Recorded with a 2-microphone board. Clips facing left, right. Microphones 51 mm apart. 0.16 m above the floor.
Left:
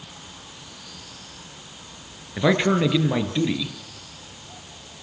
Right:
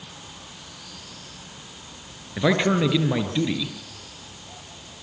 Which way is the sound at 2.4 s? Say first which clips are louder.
Left 1 dB; 5° left (ahead or behind).